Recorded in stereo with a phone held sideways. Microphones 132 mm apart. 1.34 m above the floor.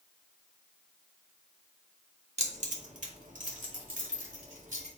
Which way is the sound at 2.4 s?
60° right (ahead or behind).